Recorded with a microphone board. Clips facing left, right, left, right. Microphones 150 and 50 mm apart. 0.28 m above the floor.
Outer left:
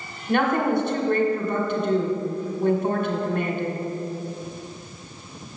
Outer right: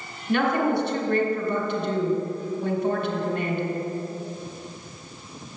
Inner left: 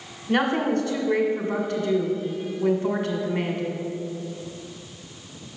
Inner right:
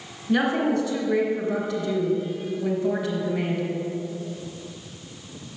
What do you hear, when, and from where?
0.3 s a woman speaking: 50° left (ahead or behind), 1.8 m